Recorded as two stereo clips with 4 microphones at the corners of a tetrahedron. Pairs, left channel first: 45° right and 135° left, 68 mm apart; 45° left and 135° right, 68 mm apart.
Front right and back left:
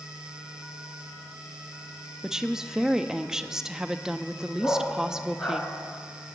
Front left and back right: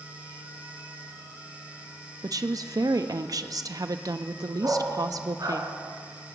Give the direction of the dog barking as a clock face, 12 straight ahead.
4 o'clock.